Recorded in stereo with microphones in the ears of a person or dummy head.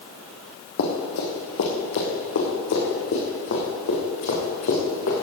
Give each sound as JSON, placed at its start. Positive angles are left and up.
{"t": 0.8, "sound": "running footsteps", "side_deg": 65, "distance_m": 3.0}